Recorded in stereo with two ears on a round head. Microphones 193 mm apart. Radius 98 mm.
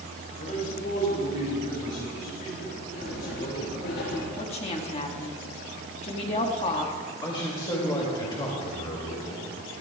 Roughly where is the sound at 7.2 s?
Left.